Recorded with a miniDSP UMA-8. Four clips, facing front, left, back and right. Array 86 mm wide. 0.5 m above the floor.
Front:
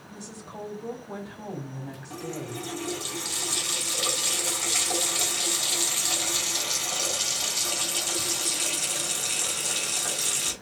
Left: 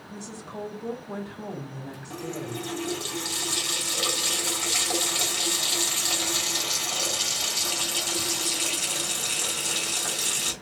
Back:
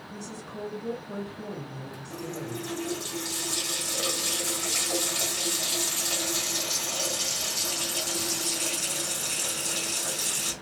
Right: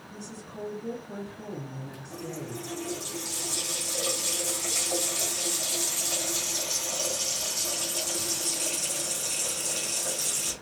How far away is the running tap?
About 3 m.